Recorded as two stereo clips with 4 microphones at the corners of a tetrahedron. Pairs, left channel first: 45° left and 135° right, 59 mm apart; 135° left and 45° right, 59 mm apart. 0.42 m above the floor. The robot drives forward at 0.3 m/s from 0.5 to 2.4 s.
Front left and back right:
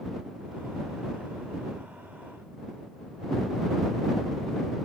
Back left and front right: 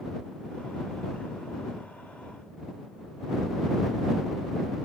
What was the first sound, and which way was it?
Only background noise.